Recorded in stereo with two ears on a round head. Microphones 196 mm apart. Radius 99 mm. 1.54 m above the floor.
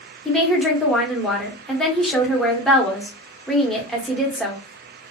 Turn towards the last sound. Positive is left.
turn(degrees=0)  # may be behind; listen again after turning